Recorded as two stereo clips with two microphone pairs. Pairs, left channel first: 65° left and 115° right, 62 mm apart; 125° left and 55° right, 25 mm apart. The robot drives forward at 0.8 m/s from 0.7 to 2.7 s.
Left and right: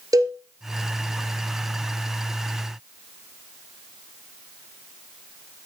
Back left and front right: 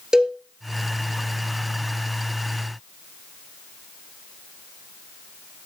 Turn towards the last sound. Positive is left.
turn(degrees=-150)